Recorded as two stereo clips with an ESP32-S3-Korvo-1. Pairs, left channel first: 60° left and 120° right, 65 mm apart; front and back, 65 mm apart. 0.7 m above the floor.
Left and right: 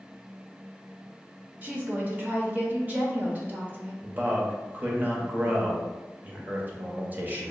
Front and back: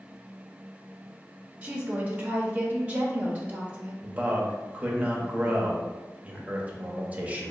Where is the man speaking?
145° right, 0.7 m.